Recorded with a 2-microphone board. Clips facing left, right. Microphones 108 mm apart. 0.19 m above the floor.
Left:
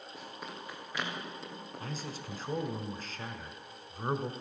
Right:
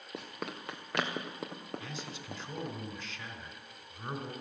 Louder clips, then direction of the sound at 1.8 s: Left 3 dB; 40° left (ahead or behind).